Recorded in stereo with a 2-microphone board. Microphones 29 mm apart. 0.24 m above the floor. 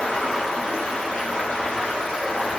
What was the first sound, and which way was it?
Running water, 60° left (ahead or behind).